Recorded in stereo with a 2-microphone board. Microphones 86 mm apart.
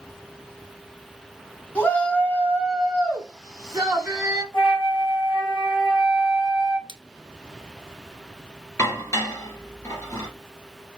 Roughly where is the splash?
Right.